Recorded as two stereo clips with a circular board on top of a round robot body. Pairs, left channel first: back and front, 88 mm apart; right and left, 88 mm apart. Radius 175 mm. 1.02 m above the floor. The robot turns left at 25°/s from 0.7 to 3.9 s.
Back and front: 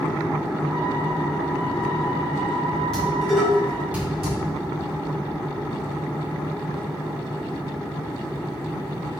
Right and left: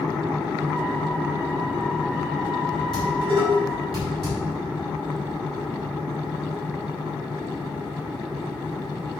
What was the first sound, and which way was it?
Dishes clattering, 100° left.